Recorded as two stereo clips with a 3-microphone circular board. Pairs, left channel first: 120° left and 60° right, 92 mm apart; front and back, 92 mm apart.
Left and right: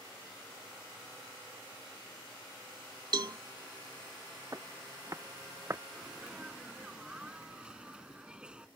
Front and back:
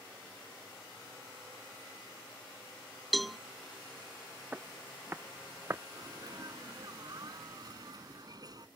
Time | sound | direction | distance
3.1 | a cowbell | 90° right | ?
4.5 | footsteps | 110° right | ?
5.9 | a sneeze | 140° right | ?